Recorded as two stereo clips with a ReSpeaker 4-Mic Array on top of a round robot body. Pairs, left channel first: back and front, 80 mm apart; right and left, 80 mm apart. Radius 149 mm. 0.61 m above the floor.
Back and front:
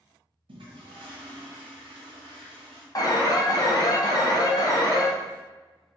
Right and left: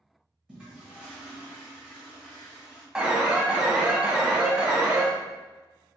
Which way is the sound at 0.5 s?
10° left.